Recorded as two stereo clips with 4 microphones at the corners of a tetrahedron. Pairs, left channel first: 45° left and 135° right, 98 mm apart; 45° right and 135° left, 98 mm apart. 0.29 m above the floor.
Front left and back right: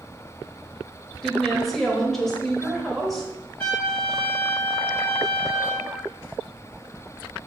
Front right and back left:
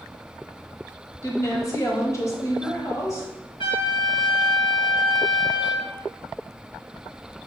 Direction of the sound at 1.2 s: 40° right.